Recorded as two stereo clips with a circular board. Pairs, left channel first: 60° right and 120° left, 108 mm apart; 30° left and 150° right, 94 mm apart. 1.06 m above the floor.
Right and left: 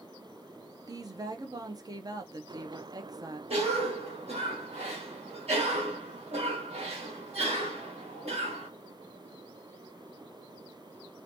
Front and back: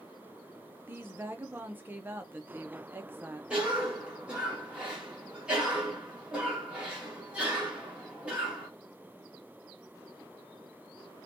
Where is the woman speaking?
155° left, 0.5 m.